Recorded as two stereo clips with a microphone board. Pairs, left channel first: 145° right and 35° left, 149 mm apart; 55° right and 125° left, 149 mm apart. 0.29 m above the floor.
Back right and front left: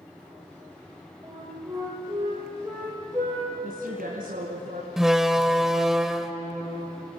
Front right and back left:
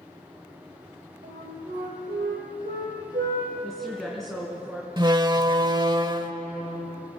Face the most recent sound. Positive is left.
turn(degrees=120)